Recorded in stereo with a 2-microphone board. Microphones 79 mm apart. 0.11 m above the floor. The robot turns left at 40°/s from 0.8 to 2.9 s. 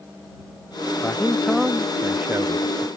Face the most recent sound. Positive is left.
turn(degrees=-55)